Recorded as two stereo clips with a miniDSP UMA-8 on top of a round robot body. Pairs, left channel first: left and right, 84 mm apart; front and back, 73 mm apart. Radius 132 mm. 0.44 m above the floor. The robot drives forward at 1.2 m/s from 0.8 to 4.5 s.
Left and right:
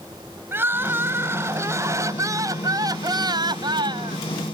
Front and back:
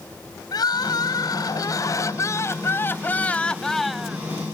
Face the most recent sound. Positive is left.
turn(degrees=-110)